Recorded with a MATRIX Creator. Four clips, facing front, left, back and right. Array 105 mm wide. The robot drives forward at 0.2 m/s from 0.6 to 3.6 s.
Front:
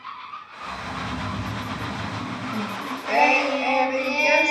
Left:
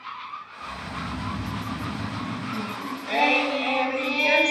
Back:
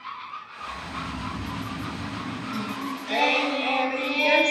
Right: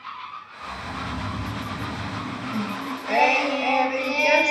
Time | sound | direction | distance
0.6 | snoring | 90° left | 3 m
2.5 | singing | 15° right | 0.6 m